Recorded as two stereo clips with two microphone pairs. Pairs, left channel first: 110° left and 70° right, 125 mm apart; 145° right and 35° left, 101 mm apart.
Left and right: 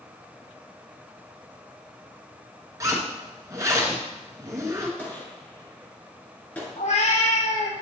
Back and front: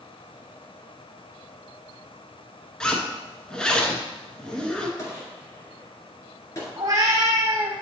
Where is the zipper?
75° right, 1.1 m.